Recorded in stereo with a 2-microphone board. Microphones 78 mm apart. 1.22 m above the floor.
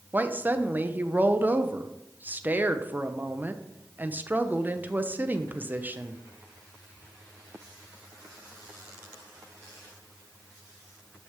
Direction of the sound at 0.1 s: 25° right (ahead or behind).